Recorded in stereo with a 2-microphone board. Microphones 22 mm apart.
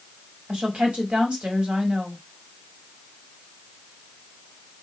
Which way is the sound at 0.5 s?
55° right (ahead or behind).